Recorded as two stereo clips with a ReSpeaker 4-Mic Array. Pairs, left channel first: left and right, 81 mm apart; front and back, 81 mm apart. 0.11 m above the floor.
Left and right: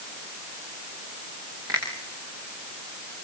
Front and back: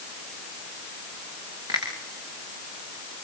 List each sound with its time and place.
1.7 s a finger snap: 140° right, 9 m